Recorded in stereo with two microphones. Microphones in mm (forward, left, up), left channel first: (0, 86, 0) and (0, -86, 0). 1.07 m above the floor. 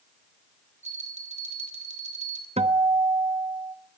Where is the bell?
40° right (ahead or behind), 2 m.